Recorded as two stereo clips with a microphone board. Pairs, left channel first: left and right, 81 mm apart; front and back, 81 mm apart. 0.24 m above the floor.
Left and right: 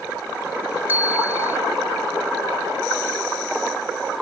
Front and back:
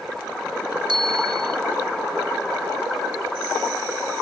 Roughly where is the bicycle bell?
Behind right.